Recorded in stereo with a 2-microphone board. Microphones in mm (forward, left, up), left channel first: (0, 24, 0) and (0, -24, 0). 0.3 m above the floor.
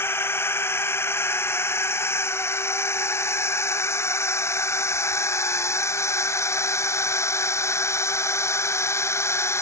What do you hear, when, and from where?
0.0 s a drone: 60° left (ahead or behind); by 9.6 s 70° left (ahead or behind)